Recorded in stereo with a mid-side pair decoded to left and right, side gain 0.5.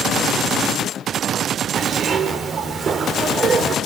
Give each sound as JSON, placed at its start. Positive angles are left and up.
{"t": 1.8, "sound": "a zipper", "azimuth_deg": -50, "distance_m": 2.5}